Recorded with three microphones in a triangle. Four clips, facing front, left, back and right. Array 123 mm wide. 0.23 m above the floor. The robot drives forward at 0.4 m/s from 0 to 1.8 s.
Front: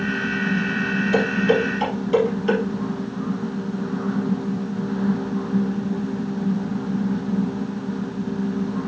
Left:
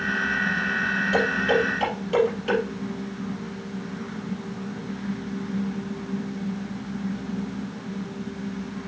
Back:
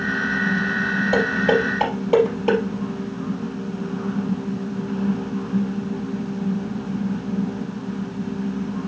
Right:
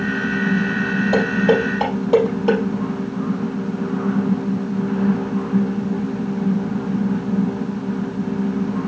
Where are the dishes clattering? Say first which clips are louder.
Right 5 dB, even; 130° right, 3.5 m; by 2.6 s 135° right, 4 m.